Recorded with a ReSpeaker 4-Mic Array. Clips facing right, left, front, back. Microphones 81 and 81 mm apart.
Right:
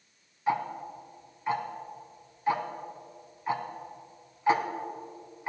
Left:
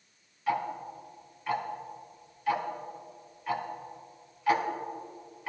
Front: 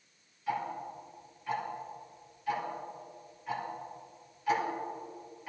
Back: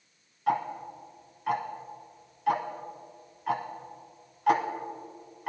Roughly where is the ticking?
Behind right.